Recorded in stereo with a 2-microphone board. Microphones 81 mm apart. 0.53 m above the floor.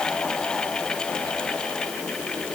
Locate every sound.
Only background noise.